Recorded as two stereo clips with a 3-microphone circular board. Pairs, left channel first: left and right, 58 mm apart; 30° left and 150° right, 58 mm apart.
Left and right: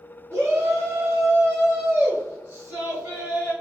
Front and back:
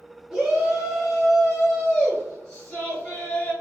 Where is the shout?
65° right, 1.8 m; by 3.5 s 45° right, 3 m.